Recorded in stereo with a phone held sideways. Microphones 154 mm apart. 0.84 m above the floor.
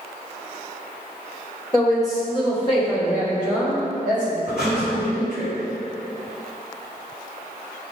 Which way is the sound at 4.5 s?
75° left (ahead or behind).